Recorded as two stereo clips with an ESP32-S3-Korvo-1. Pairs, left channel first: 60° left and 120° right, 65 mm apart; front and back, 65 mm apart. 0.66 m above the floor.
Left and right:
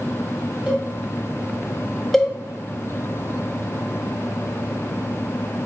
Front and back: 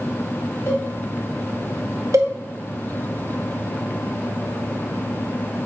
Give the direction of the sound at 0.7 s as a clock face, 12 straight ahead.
2 o'clock.